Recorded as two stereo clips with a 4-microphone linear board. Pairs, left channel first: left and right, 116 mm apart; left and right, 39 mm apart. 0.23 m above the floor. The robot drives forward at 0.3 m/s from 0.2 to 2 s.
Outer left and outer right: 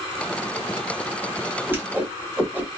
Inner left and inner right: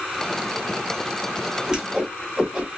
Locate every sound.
1.7 s a whoosh: 15° right (ahead or behind), 1.2 m